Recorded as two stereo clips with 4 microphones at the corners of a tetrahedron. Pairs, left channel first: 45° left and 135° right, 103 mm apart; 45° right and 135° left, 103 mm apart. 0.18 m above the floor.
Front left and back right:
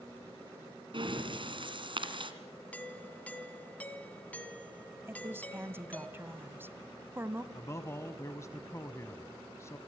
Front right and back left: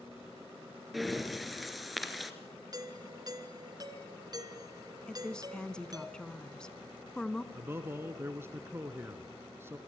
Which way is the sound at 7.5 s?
85° left.